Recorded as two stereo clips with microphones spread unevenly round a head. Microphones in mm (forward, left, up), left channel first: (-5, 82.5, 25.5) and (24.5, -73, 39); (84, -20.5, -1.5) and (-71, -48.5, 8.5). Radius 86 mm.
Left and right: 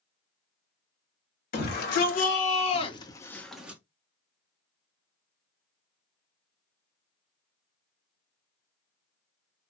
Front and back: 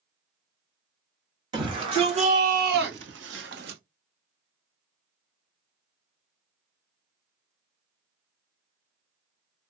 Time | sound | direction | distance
1.5 | a shout | 125° left | 1.8 m